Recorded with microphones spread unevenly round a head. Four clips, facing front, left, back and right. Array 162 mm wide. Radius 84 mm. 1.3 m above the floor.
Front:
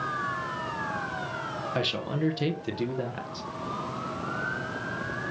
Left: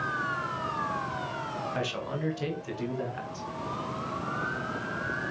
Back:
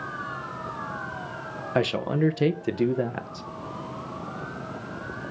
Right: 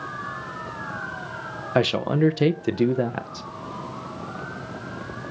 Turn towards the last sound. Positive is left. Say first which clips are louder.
# right 17 dB, back 7 dB
turn(degrees=-110)